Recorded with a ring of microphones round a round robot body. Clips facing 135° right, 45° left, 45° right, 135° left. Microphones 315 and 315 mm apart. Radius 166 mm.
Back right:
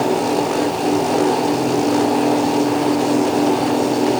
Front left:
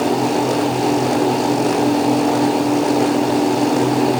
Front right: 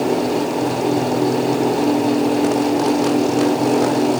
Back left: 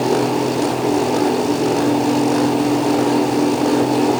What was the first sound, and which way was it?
Only background noise.